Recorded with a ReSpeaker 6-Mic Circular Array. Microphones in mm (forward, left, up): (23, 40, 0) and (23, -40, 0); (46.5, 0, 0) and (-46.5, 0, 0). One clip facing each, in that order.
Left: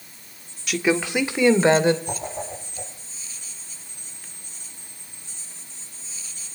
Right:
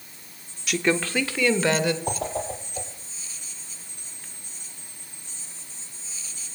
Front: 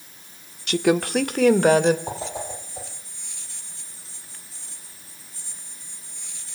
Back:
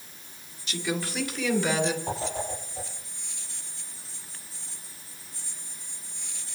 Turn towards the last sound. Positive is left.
turn(degrees=-75)